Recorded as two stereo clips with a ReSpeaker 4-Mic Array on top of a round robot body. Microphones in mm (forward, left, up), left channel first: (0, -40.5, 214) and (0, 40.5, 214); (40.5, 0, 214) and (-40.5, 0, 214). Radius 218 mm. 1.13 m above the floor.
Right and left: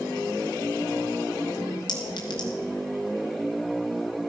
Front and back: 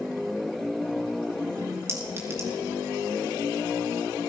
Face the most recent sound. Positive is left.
turn(degrees=-120)